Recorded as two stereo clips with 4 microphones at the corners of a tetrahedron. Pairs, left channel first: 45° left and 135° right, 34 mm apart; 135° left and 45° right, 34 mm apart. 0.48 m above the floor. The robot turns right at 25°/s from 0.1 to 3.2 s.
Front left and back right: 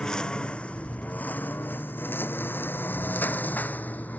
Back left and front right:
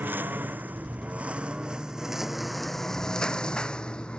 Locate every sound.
0.0 s a lawn mower: 30° right; by 4.2 s 80° left